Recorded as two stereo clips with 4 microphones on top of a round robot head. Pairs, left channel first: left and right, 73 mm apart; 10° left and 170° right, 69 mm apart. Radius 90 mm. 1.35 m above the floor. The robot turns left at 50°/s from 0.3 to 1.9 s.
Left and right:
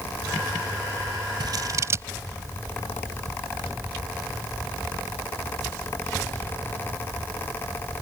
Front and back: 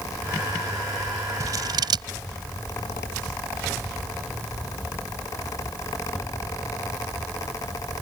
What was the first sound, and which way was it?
Scissors, 125° right.